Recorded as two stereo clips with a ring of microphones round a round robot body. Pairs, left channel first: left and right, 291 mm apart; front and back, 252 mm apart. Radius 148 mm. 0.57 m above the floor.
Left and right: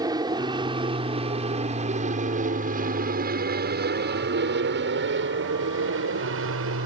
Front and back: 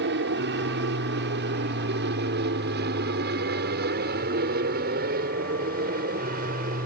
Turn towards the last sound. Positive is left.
turn(degrees=-125)